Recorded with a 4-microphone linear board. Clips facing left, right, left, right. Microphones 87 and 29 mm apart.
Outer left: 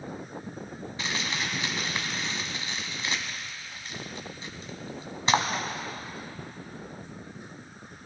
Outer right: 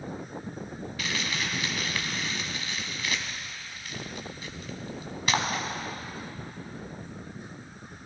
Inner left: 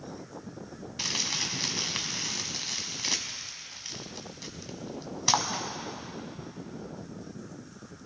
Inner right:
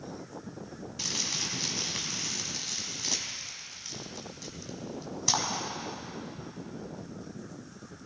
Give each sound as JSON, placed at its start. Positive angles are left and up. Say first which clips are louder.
{"t": 1.0, "sound": "crumpling", "louder": "outer left 1 dB, inner left 3 dB", "side_deg": 25, "distance_m": 1.3}